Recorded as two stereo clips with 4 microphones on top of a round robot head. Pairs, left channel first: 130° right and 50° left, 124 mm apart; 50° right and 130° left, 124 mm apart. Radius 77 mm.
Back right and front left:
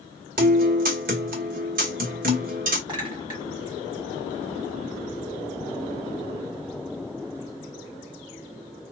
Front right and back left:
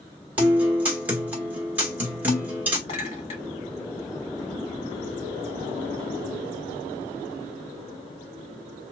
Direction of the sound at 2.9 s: 5° right.